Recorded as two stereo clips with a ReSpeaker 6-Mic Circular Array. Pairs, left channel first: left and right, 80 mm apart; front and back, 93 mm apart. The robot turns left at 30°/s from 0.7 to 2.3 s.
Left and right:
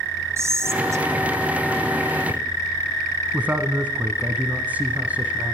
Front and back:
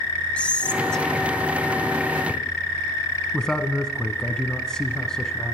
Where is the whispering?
70° right, 1.8 m; by 2.4 s 120° right, 1.8 m.